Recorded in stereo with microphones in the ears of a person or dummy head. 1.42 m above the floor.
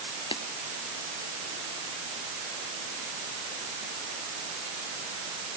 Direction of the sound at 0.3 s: 30° left (ahead or behind).